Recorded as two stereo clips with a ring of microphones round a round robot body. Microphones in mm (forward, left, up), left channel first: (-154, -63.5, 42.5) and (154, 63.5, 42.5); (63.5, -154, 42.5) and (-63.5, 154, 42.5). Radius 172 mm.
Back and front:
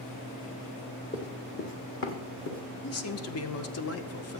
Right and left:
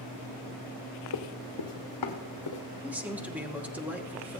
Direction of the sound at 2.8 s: 165° right.